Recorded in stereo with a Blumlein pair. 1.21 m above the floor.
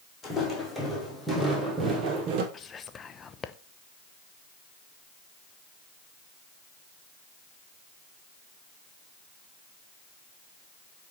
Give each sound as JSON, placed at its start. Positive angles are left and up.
{"t": 0.2, "sound": "footsteps", "azimuth_deg": 15, "distance_m": 4.0}
{"t": 2.5, "sound": "whispering", "azimuth_deg": 20, "distance_m": 0.6}